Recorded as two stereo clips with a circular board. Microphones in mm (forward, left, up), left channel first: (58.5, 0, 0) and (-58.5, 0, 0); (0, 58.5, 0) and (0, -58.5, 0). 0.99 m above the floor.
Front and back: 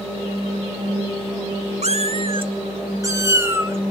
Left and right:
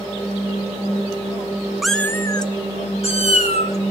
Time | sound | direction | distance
1.8 | a cat meowing | straight behind | 0.5 m